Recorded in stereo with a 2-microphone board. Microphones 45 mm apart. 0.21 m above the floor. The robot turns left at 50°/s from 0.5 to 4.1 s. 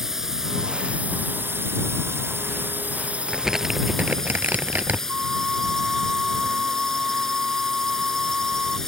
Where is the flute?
25° right (ahead or behind).